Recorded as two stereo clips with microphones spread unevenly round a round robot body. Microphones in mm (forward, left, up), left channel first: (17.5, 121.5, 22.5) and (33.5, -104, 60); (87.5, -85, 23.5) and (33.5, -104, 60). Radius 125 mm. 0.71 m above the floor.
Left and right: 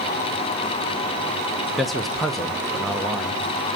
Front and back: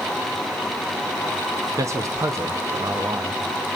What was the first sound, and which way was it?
A man speaking, 155° left.